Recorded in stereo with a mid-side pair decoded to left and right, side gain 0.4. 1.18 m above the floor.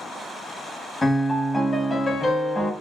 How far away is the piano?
About 1.2 m.